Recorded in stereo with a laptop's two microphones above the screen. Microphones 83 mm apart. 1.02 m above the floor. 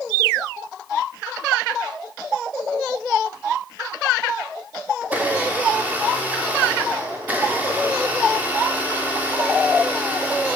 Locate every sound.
5.0 s a blender: 20° right (ahead or behind), 0.9 m